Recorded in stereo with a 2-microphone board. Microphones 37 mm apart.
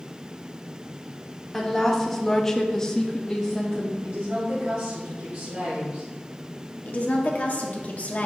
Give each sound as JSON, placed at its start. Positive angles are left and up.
{"t": 1.5, "sound": "a woman speaking", "side_deg": 5, "distance_m": 1.3}
{"t": 4.0, "sound": "a woman speaking", "side_deg": -65, "distance_m": 1.9}
{"t": 6.8, "sound": "a woman speaking", "side_deg": 50, "distance_m": 1.0}